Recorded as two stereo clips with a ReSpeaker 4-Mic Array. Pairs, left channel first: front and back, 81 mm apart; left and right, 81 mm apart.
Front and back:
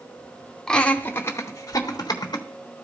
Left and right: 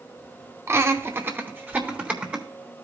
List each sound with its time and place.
0.7 s laughter: 75° right, 0.9 m; by 2.5 s 15° right, 1.5 m